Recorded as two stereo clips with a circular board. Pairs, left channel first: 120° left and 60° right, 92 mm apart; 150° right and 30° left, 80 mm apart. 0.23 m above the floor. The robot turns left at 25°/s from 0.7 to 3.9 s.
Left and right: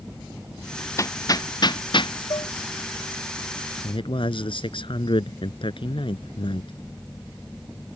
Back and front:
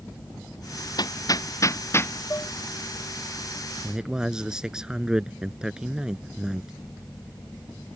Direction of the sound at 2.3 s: 155° left.